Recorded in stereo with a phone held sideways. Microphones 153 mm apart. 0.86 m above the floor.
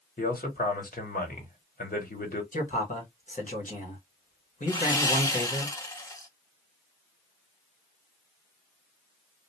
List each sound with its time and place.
0.2 s a man speaking: 70° left (ahead or behind), 1.3 m
2.5 s a man speaking: 55° left (ahead or behind), 1.5 m
4.7 s sawing: 20° left (ahead or behind), 0.6 m